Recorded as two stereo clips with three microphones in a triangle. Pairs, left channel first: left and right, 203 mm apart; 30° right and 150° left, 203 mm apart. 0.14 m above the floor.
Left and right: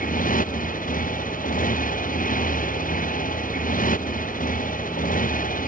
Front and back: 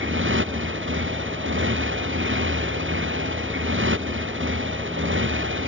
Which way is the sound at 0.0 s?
135° left.